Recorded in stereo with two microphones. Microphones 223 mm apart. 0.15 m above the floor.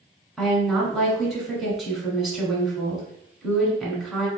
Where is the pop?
No pop in this recording.